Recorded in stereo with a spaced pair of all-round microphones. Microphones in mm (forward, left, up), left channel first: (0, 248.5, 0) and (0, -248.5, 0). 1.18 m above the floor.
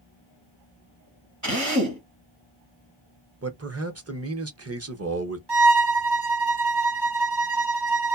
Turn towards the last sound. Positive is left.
turn(degrees=-50)  # may be behind; listen again after turning